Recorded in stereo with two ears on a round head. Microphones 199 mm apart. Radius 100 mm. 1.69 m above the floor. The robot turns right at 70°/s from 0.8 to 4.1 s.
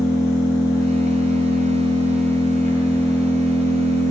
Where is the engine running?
15° left, 3.5 m; by 4.1 s 110° right, 3.5 m.